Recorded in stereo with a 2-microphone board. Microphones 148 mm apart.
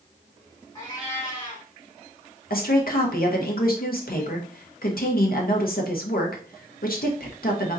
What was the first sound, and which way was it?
A cat meowing, 30° left (ahead or behind).